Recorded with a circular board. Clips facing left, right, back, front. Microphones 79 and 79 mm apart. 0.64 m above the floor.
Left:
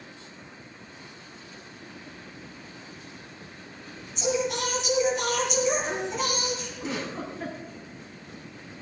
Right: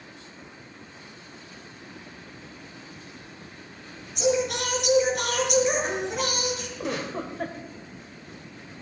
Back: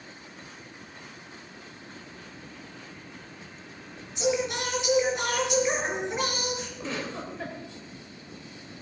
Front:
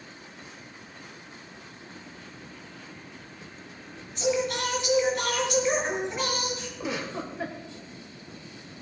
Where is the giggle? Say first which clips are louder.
Right 4 dB, front 2 dB; 80° right, 3 m.